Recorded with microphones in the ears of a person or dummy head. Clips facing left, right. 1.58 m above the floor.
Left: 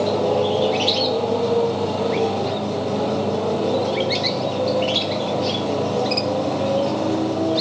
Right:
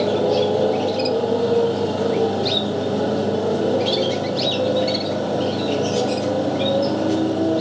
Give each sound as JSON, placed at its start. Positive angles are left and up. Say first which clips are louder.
{"t": 0.0, "sound": "a motorcycle", "louder": "right 1 dB", "side_deg": -10}